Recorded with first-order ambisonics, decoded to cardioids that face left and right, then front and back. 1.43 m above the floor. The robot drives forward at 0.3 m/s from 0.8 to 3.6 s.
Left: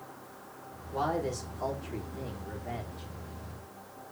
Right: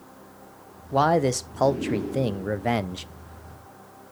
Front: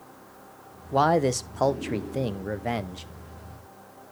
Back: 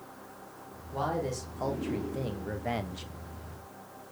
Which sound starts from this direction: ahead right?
A man speaking, at 0.9 s.